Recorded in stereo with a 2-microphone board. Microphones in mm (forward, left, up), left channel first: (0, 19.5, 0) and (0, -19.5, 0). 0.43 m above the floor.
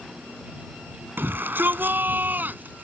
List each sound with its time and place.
1.2 s a shout: 60° right (ahead or behind); by 2.8 s 50° right (ahead or behind)